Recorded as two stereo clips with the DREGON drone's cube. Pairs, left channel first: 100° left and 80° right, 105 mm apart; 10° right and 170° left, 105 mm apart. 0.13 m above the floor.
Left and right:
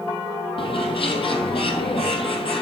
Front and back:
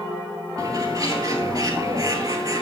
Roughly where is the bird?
Behind left.